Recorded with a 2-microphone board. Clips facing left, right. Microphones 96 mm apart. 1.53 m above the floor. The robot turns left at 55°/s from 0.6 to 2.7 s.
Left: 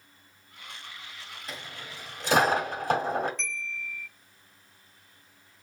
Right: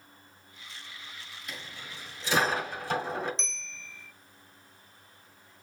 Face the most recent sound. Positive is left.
turn(degrees=-20)  # may be behind; listen again after turning